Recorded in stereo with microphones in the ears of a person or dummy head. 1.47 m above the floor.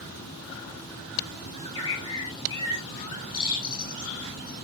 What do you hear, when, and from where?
1.5 s a bird: 20° left (ahead or behind), 2.5 m